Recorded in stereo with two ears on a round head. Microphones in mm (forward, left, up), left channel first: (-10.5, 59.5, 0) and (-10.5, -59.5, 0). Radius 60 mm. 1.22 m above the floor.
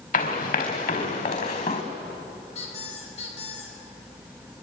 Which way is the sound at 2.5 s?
50° left (ahead or behind).